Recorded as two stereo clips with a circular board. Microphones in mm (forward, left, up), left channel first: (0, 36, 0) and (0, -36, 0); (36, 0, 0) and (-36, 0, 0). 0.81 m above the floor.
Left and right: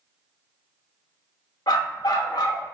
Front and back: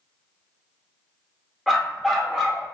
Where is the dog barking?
90° left, 0.7 m.